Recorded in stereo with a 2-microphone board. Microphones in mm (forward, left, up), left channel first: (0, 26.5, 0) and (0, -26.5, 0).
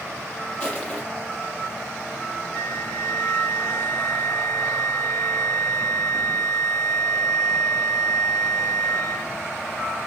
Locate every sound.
0.6 s crushing: 20° left (ahead or behind), 5 m
2.5 s a flute: 35° left (ahead or behind), 4 m